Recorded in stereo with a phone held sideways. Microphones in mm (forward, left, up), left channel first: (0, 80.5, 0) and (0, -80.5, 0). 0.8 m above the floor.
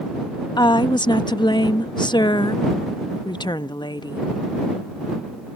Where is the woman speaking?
30° left (ahead or behind).